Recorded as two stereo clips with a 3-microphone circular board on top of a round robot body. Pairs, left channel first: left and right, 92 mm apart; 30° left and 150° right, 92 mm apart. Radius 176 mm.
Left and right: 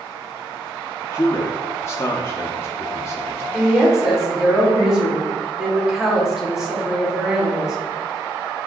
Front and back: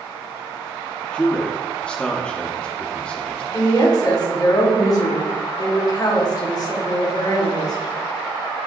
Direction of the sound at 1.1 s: 100° left.